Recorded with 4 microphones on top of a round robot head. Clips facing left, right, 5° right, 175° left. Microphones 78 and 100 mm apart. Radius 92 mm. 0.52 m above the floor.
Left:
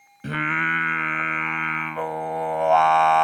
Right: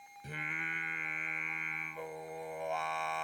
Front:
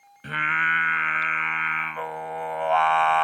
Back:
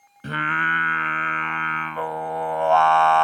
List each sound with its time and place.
0.2 s singing: 110° left